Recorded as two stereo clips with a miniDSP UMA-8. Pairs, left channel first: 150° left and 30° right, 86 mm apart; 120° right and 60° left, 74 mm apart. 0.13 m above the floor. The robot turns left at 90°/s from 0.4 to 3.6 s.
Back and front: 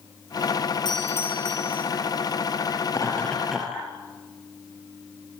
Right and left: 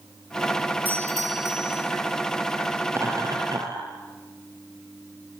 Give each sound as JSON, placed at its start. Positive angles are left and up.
{"t": 0.8, "sound": "a doorbell", "azimuth_deg": 125, "distance_m": 5.0}
{"t": 2.9, "sound": "laughter", "azimuth_deg": 115, "distance_m": 3.5}